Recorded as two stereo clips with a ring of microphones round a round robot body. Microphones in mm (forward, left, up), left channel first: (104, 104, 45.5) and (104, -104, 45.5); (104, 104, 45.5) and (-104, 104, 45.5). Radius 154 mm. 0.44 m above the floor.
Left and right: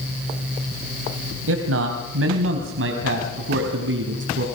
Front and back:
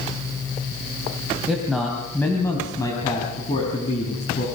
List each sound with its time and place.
1.5 s a man speaking: 95° right, 2.5 m; by 4.5 s 65° right, 3.5 m